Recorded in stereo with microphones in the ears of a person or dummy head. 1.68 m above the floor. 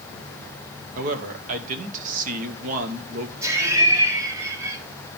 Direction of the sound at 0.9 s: 50° right (ahead or behind).